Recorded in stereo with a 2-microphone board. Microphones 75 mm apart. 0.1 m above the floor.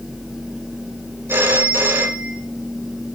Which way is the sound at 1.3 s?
30° right (ahead or behind).